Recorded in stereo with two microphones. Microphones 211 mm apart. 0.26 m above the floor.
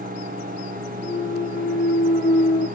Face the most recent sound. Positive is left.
turn(degrees=40)  # may be behind; listen again after turning